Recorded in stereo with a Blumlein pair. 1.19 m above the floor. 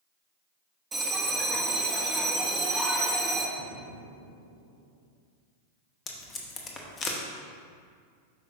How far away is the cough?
No cough in this recording.